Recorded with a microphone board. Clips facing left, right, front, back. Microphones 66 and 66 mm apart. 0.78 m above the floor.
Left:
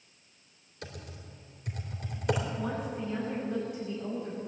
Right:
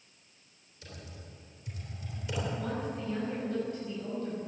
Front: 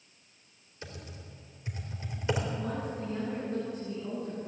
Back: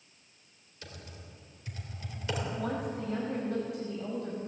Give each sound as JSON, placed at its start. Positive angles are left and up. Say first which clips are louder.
{"t": 0.8, "sound": "typing on a keyboard", "louder": "left 4 dB, front 3 dB", "azimuth_deg": 65, "distance_m": 3.0}
{"t": 2.6, "sound": "a woman speaking", "louder": "left 1 dB, back 1 dB", "azimuth_deg": 165, "distance_m": 4.5}